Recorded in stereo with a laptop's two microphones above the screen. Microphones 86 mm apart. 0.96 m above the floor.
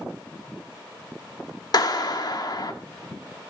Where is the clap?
50° left (ahead or behind), 1.8 m.